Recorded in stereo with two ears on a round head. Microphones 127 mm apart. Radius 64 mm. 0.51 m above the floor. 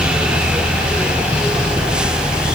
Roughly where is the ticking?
I don't hear ticking.